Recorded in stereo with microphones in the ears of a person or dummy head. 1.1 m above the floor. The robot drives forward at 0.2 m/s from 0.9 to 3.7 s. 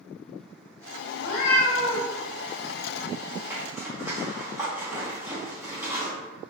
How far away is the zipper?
About 0.9 m.